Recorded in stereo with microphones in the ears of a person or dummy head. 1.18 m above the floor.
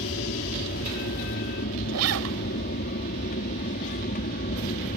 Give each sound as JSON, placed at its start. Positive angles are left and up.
{"t": 0.0, "sound": "an aircraft", "side_deg": 45}
{"t": 1.9, "sound": "a zipper", "side_deg": -85}